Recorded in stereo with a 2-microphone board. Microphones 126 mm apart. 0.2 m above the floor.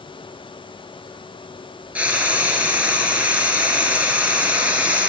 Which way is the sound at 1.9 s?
10° right (ahead or behind).